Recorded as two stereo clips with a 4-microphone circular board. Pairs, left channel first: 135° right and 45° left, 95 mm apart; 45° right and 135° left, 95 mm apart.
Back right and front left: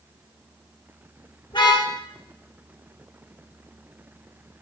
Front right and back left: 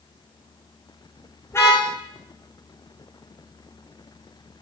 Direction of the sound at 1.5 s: 105° right.